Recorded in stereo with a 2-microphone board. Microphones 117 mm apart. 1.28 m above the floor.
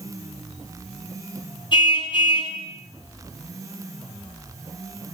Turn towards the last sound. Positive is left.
turn(degrees=40)  # may be behind; listen again after turning